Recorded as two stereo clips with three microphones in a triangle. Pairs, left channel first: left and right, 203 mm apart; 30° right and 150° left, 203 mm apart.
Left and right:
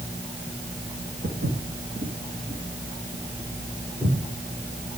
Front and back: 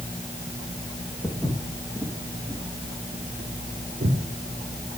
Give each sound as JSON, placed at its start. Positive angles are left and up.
{"t": 1.2, "sound": "footsteps", "azimuth_deg": -110, "distance_m": 1.9}